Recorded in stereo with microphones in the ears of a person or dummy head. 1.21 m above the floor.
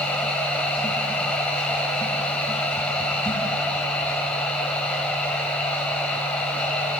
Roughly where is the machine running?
Centre.